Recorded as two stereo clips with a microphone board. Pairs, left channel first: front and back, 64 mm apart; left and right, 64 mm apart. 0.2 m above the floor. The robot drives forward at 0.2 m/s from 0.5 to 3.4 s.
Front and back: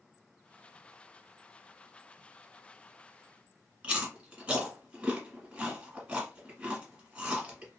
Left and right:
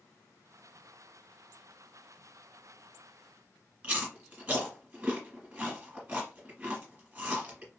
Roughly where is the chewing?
Behind right.